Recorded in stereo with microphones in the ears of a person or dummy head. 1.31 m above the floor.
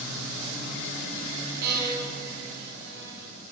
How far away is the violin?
About 2.0 m.